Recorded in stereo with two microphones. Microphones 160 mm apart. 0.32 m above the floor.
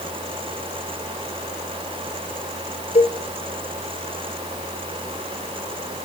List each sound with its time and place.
3.0 s a cowbell: 45° left (ahead or behind), 2 m